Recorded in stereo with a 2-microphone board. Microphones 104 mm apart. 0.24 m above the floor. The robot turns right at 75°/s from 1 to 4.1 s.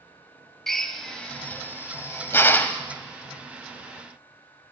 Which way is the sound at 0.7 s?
5° left (ahead or behind).